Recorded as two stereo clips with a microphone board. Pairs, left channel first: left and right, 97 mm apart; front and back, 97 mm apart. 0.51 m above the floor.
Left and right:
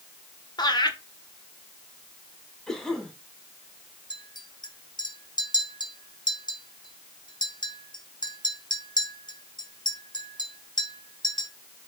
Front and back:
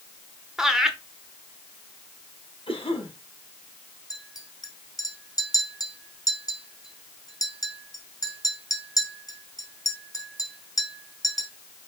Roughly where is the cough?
Ahead.